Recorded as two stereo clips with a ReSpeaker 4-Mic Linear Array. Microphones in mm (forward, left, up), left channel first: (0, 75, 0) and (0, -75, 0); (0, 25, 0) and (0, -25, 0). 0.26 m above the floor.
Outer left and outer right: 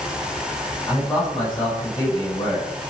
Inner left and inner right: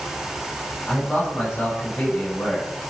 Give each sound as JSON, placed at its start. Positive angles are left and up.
{"t": 0.9, "sound": "a man speaking", "side_deg": 30, "distance_m": 1.5}